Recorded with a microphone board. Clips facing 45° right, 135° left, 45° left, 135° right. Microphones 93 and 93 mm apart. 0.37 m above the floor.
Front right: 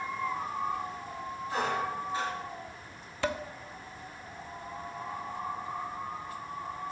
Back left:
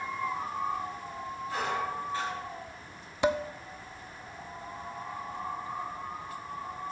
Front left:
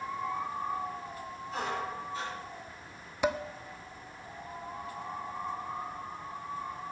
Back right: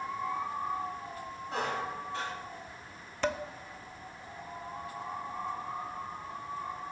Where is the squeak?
115° right, 4.5 m.